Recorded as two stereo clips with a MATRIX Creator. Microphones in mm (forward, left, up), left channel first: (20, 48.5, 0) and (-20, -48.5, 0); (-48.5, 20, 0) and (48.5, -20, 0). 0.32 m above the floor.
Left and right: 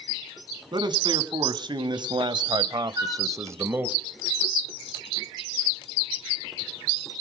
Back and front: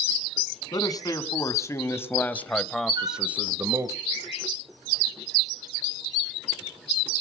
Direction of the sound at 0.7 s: 155° right.